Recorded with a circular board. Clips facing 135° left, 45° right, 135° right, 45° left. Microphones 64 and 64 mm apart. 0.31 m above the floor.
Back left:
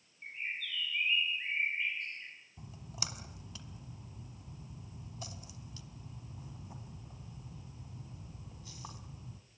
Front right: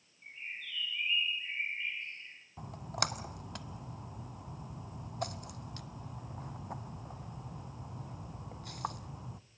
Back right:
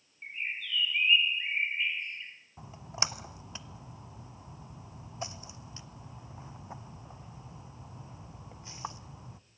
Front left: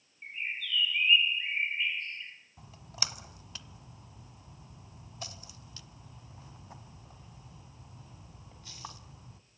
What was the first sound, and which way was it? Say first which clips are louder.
A bird: back left 4 dB, even; 150° left.